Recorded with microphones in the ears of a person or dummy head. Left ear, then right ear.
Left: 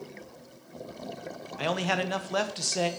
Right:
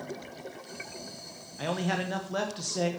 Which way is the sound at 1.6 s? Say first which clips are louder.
Left 3 dB; 30° left (ahead or behind).